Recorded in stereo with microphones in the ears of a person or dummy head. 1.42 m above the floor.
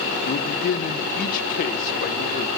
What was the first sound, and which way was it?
A man speaking, 45° left (ahead or behind).